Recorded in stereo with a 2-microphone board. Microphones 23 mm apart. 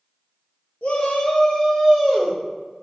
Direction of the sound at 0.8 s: 75° left (ahead or behind).